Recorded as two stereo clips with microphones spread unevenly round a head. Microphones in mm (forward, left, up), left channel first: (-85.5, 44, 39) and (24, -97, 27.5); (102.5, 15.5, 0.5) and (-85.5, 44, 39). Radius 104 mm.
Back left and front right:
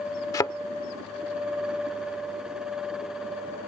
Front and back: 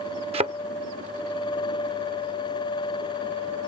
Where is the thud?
175° right.